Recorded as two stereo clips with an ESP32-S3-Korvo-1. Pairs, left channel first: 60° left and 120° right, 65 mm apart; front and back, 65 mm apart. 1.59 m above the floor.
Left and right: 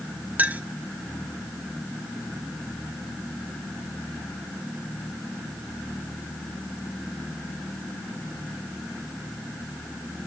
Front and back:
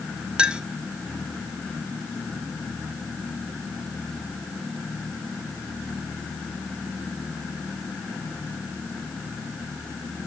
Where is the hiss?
I don't hear a hiss.